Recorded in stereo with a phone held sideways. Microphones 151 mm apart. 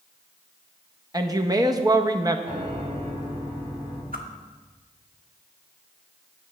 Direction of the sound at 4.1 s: 70° right (ahead or behind).